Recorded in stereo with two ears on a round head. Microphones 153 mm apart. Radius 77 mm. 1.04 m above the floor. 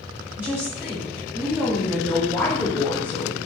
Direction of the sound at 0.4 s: 10° right (ahead or behind).